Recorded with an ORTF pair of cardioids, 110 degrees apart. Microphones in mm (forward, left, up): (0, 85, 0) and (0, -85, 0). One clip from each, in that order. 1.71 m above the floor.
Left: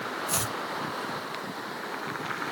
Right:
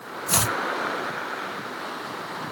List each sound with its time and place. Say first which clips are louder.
0.3 s chopping: right 10 dB; 35° right